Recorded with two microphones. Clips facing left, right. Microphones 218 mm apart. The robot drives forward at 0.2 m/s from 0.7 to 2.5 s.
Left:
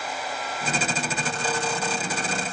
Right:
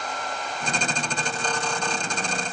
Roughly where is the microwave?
I don't hear a microwave.